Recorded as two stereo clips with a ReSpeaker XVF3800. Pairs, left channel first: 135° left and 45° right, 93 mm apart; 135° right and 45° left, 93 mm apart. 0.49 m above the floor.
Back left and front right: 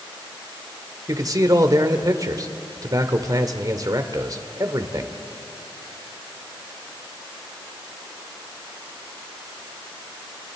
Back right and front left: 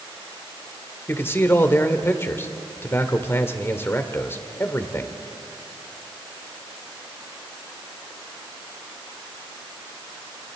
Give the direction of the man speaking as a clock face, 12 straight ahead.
3 o'clock.